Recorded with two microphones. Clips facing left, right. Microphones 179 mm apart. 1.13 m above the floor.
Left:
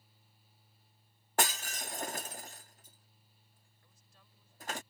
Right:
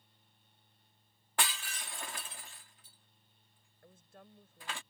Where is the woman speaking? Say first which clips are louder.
Right 14 dB; 60° right (ahead or behind).